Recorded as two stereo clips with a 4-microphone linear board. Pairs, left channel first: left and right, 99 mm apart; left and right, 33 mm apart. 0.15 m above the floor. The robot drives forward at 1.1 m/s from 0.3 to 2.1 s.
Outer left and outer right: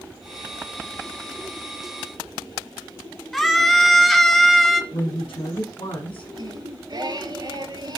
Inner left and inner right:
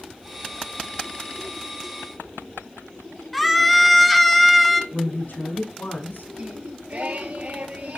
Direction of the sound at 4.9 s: 65° left (ahead or behind).